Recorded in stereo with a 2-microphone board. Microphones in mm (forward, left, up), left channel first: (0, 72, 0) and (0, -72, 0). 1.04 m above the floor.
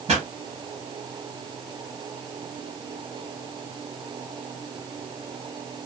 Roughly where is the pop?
Right.